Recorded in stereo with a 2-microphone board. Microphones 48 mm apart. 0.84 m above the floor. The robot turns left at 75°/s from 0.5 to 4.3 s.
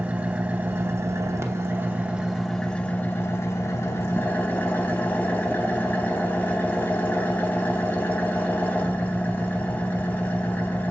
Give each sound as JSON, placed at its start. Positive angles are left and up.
{"t": 0.0, "sound": "an engine running", "azimuth_deg": -35, "distance_m": 0.8}